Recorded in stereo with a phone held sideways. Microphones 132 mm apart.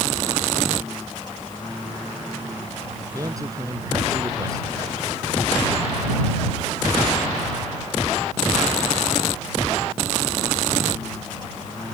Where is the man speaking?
25° right (ahead or behind).